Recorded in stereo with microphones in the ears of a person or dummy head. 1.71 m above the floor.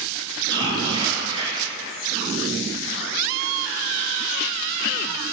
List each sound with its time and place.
0.5 s whispering: 25° right (ahead or behind), 0.5 m